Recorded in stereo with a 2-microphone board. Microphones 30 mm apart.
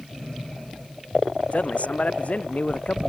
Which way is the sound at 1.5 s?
55° left (ahead or behind).